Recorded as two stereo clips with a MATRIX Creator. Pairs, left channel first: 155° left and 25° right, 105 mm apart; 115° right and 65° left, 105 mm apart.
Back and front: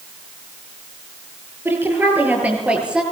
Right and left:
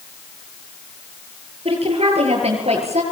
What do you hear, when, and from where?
1.6 s a woman speaking: 45° left, 8.5 m; by 3.0 s 60° left, 8 m